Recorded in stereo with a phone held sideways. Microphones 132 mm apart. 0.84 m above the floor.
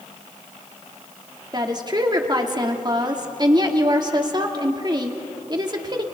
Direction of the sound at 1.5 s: 35° right (ahead or behind).